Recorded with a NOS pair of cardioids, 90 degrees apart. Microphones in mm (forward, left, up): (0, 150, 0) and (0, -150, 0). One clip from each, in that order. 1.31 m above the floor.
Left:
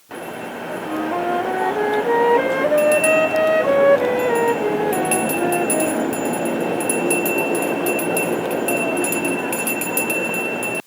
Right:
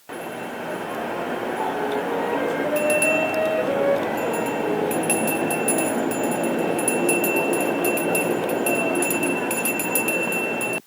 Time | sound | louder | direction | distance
0.9 | a flute | left 8 dB | 50° left | 1.0 m